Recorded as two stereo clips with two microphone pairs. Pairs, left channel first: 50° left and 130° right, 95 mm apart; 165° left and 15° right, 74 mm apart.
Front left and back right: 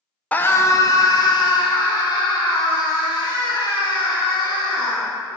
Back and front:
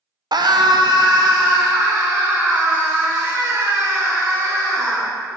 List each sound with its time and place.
0.3 s a scream: 20° right, 0.6 m; by 5.1 s 15° left, 5 m